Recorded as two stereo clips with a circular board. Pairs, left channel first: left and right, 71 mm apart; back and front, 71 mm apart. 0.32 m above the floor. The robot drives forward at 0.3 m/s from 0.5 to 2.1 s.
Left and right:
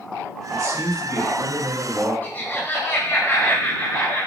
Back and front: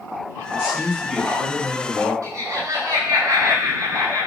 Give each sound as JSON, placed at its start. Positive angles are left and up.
{"t": 0.5, "sound": "a man speaking", "azimuth_deg": -70, "distance_m": 2.5}
{"t": 2.2, "sound": "laughter", "azimuth_deg": 30, "distance_m": 4.5}